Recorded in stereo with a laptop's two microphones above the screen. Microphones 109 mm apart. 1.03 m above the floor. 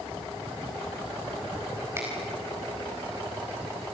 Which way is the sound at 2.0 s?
25° right (ahead or behind).